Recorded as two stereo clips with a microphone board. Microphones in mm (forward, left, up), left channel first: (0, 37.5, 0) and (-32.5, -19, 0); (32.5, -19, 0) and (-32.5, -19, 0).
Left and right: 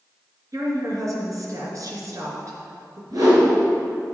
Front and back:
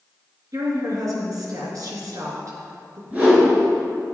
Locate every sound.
0.5 s a woman speaking: 155° right, 3 m
3.1 s a whoosh: 115° right, 3.5 m